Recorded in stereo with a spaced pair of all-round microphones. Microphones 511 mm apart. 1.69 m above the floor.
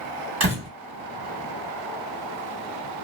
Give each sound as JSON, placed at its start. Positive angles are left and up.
{"t": 0.4, "sound": "a door slam", "side_deg": -30, "distance_m": 1.6}